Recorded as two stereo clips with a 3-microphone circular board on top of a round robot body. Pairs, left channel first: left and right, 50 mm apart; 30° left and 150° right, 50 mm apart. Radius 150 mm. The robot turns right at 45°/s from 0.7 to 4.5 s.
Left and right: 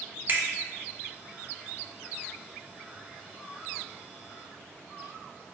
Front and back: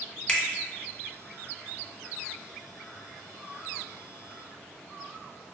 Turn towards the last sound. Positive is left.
turn(degrees=125)